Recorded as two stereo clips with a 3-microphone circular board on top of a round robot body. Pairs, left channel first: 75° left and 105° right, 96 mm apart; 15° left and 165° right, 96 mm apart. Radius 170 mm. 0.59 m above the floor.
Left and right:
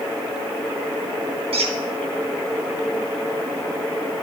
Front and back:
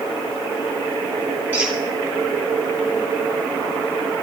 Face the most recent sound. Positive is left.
turn(degrees=-90)